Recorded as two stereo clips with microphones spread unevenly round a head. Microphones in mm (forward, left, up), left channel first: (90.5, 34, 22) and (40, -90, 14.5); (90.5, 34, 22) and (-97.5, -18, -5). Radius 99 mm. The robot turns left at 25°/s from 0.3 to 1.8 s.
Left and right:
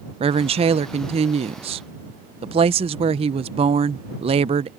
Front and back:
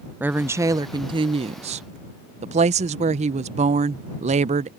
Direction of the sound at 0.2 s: 95° right.